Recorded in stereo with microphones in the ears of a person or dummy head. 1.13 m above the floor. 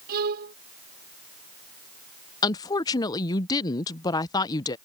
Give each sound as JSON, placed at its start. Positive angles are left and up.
{"t": 0.1, "sound": "a violin", "side_deg": -55}
{"t": 2.4, "sound": "a woman speaking", "side_deg": 20}